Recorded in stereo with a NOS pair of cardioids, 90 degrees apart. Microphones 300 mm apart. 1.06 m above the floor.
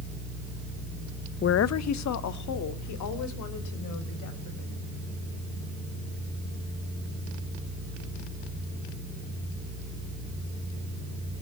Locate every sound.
1.4 s a woman speaking: 35° left, 0.6 m; by 4.7 s 75° left, 6 m